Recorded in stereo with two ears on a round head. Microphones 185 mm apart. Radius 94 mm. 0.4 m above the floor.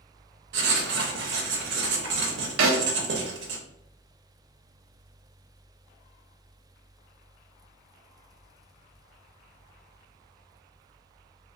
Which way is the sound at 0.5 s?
55° right (ahead or behind).